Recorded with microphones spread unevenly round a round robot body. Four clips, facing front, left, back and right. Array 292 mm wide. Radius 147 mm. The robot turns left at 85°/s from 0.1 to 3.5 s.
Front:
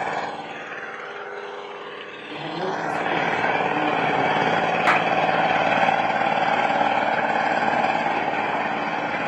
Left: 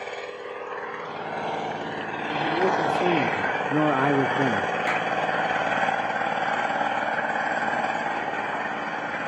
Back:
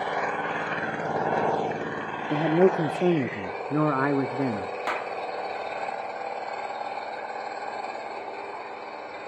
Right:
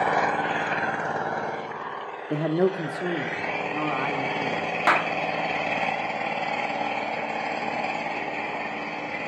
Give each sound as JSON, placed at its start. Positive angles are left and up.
{"t": 0.0, "sound": "an engine running", "azimuth_deg": -65, "distance_m": 1.2}
{"t": 2.3, "sound": "a man speaking", "azimuth_deg": -130, "distance_m": 1.5}
{"t": 4.9, "sound": "a clap", "azimuth_deg": -50, "distance_m": 1.2}